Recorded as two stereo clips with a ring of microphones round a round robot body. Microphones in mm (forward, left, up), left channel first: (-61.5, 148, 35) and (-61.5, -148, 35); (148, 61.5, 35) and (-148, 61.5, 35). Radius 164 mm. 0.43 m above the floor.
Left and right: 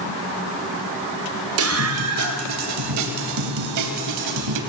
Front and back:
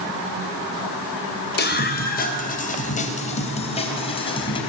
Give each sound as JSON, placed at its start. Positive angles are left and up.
{"t": 1.6, "sound": "a scream", "azimuth_deg": -55, "distance_m": 2.5}